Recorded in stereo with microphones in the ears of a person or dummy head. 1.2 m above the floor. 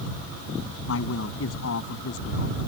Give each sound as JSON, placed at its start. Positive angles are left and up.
{"t": 0.9, "sound": "a man speaking", "side_deg": 75}